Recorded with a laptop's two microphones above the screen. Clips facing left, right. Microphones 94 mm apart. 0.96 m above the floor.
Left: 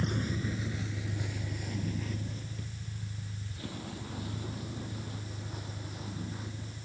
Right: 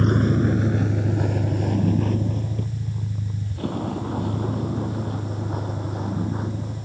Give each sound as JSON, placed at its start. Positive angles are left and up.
{"t": 0.0, "sound": "a vehicle", "side_deg": -65}